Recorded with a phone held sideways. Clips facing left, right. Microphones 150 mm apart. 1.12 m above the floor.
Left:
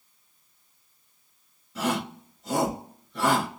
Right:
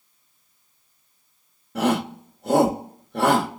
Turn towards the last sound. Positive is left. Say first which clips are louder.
# right 6 dB
turn(degrees=-60)  # may be behind; listen again after turning